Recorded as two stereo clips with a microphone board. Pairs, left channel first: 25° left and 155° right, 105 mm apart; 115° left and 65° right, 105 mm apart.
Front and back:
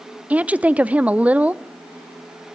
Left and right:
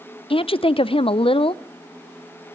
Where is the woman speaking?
125° left, 0.6 m.